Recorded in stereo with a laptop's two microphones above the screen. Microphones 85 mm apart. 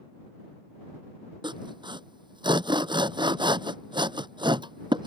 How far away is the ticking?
No ticking in this recording.